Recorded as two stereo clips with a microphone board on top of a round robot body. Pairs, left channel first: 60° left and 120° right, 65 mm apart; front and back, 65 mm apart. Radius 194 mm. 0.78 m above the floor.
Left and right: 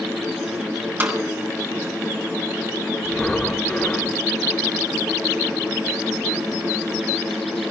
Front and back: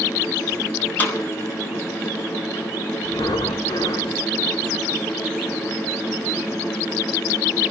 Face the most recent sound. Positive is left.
turn(degrees=-20)